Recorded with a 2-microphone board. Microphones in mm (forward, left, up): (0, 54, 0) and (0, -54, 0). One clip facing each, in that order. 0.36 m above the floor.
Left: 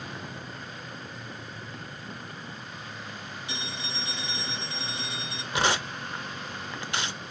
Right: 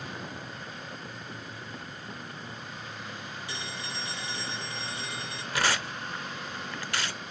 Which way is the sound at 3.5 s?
20° left (ahead or behind).